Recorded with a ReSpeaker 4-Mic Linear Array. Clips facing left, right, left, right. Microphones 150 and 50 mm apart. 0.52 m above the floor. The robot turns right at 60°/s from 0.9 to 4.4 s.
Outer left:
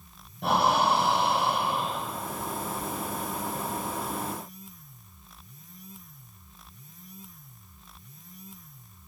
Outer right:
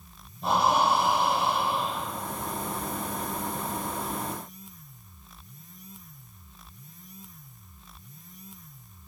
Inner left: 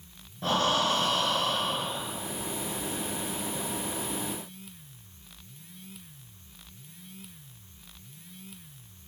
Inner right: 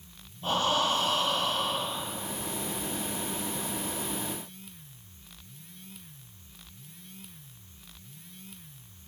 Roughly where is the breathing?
Left.